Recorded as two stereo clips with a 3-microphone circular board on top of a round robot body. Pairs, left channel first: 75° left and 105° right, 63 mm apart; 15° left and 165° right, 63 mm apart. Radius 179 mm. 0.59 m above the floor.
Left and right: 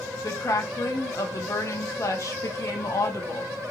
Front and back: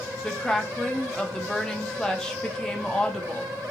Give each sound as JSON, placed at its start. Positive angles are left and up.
{"t": 0.2, "sound": "a woman speaking", "azimuth_deg": 95, "distance_m": 1.0}